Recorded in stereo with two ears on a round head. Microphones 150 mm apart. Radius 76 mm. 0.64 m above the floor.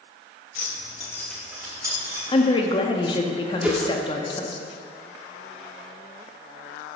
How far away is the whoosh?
About 0.9 m.